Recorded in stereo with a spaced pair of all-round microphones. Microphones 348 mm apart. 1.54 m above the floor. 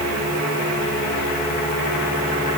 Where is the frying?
No frying in this recording.